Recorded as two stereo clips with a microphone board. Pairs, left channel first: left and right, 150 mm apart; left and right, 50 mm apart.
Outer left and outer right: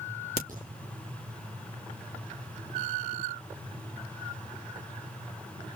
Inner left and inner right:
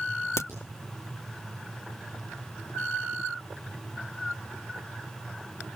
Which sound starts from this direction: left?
A crack, at 0.4 s.